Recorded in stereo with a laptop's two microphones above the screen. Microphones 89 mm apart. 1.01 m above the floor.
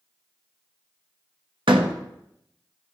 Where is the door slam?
75° right (ahead or behind), 0.9 m.